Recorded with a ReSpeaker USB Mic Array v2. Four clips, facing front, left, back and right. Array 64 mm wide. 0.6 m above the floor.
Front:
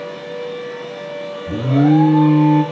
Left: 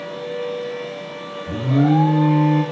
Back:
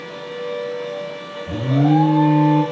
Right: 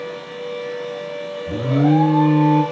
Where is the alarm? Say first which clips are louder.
Even, front 3 dB; 25° right, 1.0 m.